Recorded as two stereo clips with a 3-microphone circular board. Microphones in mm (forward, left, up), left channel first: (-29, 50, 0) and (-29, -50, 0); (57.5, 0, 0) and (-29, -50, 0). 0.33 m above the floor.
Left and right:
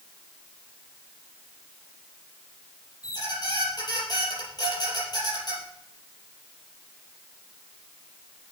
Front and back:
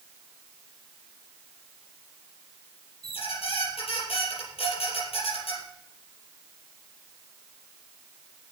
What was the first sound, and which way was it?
A squeak, 45° left.